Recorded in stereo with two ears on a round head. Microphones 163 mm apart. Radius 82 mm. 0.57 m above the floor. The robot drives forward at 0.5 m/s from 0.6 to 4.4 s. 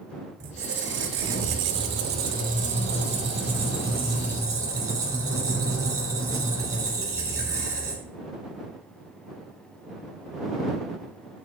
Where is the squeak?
55° right (ahead or behind), 0.7 m; by 8.1 s 20° right (ahead or behind), 1.6 m.